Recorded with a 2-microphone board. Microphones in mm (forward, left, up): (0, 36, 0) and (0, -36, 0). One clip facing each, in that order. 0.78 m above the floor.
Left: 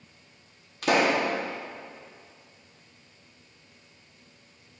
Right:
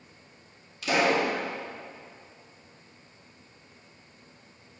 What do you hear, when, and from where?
0.8 s a pop: 55° left (ahead or behind), 1.9 m